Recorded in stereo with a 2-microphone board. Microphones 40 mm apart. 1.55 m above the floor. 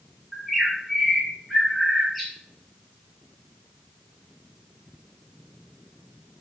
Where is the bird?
Centre (ahead or behind), 1.9 m.